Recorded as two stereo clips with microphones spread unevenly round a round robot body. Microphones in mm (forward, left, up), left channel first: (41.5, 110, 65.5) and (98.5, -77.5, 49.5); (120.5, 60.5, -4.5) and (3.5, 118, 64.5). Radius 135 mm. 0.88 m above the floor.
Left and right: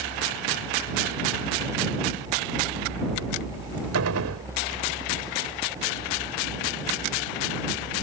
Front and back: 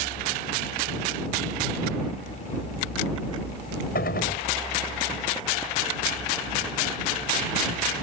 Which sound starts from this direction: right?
A gunshot, at 4.0 s.